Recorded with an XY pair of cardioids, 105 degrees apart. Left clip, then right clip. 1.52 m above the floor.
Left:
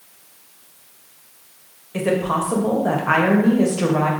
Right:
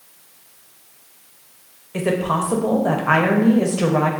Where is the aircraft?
No aircraft in this recording.